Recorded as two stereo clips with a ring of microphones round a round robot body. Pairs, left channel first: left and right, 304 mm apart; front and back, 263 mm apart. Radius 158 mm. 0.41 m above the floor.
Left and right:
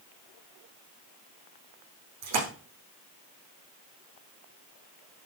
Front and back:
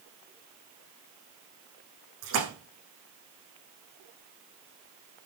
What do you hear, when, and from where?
2.2 s a splash: 130° right, 6.5 m